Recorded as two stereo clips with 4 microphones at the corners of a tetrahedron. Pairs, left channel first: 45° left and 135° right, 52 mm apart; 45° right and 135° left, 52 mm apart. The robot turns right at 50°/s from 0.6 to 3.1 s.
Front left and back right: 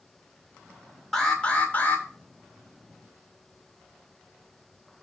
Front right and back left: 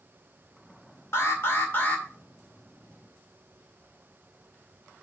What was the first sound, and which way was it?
An alarm, 35° right.